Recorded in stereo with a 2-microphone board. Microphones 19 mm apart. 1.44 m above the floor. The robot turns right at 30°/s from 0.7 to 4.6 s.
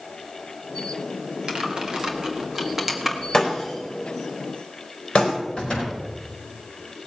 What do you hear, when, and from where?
1.5 s typing on a keyboard: 50° right (ahead or behind), 1.8 m; by 3.2 s 5° right (ahead or behind), 1.8 m
3.3 s breaking glass: 30° left (ahead or behind), 4 m; by 5.3 s 70° left (ahead or behind), 4 m
5.6 s a door slam: 45° left (ahead or behind), 5.5 m